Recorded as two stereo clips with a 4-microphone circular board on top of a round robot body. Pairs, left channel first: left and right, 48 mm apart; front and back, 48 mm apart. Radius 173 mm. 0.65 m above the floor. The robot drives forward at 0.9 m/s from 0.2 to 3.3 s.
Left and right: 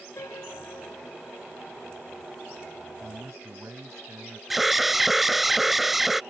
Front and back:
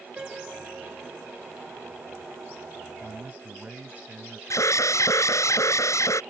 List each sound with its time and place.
0.2 s a piano: 110° left
2.9 s a man speaking: 120° right
4.5 s an alarm: 5° right